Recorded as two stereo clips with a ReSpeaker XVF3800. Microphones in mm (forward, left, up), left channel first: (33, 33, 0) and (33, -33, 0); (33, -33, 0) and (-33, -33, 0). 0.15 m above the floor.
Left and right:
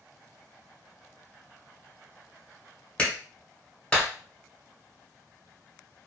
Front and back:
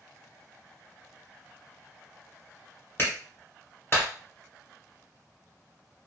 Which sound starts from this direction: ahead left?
A clap, at 3.0 s.